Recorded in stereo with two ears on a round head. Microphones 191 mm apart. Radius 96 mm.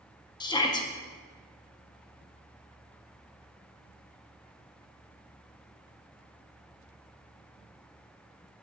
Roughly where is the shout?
Centre.